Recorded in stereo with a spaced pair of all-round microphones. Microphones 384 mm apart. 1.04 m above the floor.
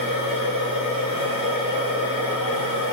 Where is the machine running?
55° right (ahead or behind), 5.5 m.